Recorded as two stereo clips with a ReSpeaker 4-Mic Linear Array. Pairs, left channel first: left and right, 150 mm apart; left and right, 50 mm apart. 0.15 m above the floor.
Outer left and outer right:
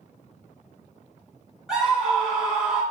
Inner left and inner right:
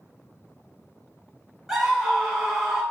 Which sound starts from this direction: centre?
A scream, at 1.7 s.